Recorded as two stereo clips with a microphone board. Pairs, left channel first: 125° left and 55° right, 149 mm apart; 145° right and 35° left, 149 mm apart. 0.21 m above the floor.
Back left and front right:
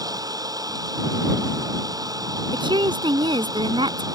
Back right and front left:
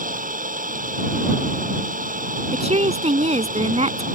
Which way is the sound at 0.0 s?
10° left.